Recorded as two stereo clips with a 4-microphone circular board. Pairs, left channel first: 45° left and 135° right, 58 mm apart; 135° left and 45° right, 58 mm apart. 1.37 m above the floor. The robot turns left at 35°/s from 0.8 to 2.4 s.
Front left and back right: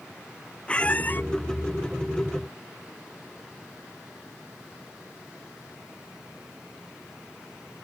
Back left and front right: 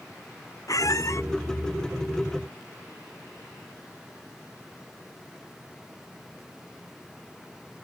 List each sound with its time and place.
0.7 s a squeak: 115° left; by 1.2 s 100° left